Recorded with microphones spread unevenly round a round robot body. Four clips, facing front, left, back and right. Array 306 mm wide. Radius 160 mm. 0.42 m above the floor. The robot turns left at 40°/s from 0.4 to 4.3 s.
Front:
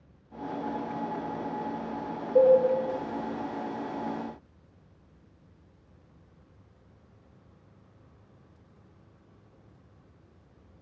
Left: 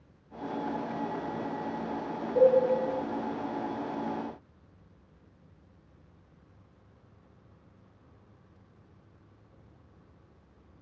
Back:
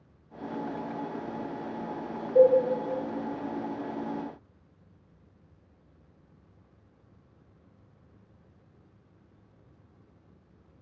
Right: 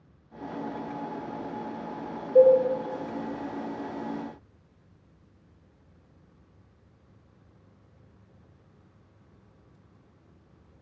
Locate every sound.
2.4 s a cowbell: 75° right, 1.0 m; by 2.6 s 85° right, 1.0 m